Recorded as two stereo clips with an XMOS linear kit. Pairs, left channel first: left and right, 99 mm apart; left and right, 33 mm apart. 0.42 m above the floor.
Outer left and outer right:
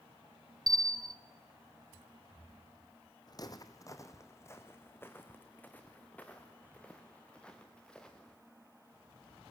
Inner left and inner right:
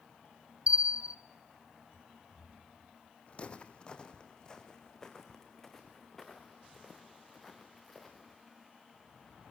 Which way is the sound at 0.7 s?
40° right (ahead or behind).